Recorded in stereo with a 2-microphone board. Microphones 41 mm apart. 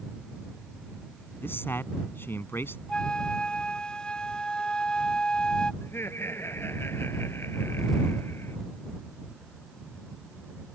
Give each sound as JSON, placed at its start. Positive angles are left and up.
{"t": 1.4, "sound": "a man speaking", "side_deg": 65}
{"t": 2.9, "sound": "a flute", "side_deg": 25}
{"t": 5.8, "sound": "laughter", "side_deg": 75}